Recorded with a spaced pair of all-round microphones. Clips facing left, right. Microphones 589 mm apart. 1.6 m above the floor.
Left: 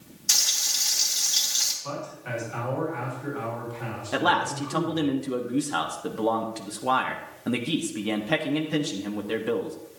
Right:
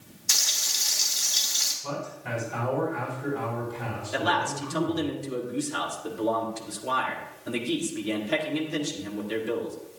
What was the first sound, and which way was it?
Frying, 50° left (ahead or behind).